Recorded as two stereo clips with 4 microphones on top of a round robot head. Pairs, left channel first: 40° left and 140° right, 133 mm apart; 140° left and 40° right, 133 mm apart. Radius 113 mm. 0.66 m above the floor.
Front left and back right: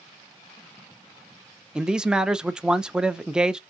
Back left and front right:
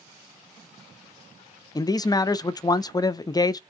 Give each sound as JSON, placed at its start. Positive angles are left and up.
{"t": 1.8, "sound": "a man speaking", "azimuth_deg": 140, "distance_m": 0.5}